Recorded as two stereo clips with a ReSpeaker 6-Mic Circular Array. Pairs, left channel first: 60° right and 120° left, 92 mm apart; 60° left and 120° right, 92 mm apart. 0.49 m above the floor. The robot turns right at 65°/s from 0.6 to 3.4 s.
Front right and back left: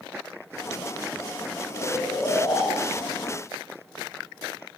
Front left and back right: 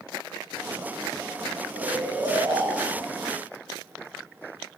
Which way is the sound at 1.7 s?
125° right.